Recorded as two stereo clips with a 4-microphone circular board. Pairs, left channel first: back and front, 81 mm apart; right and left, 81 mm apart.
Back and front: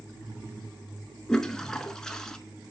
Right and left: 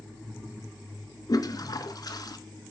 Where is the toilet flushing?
100° right, 0.6 m.